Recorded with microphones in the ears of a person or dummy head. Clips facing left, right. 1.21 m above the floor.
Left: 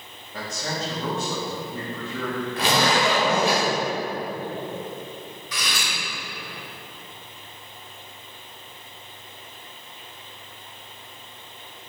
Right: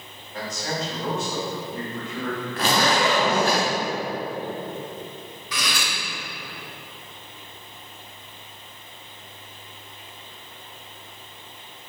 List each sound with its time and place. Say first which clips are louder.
0.3 s a man speaking: right 1 dB; 70° left (ahead or behind), 1.9 m
2.6 s a zipper: even; 10° left (ahead or behind), 1.7 m
5.5 s cutlery clinking: right 3 dB; 60° right (ahead or behind), 1.0 m